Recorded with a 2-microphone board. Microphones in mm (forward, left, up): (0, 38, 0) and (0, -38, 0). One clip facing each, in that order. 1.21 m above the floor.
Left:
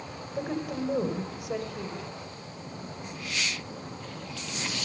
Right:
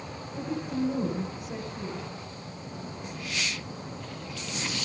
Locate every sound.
0.3 s a woman speaking: 85° left, 4.5 m